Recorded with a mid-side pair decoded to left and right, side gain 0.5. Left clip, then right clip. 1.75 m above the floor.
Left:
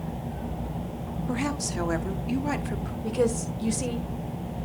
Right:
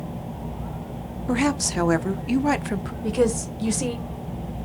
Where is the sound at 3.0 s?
25° right, 1.7 m.